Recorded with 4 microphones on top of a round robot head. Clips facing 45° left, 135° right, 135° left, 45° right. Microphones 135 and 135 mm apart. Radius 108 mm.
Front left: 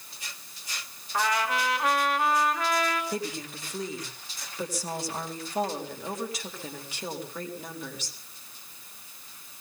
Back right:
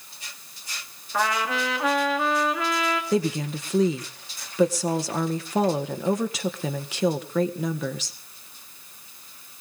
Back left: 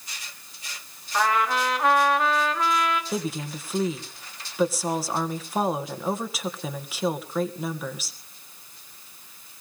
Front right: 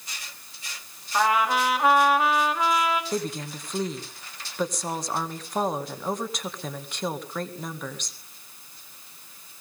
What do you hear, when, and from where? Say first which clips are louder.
1.1 s a trumpet: back right 2 dB, front right 1 dB; 130° right, 2 m
3.1 s a woman speaking: back right 9 dB, even; 140° right, 1.9 m